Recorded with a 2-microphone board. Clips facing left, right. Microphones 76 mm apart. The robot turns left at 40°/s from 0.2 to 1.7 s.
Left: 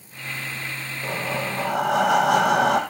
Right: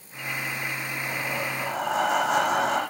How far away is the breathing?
About 5 m.